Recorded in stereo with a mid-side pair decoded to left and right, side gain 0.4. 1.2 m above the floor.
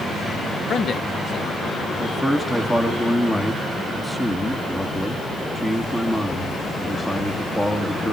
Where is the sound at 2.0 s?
10° left, 3 m.